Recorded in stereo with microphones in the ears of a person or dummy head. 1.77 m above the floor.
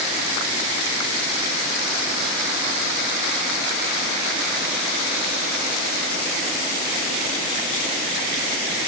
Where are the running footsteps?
No running footsteps in this recording.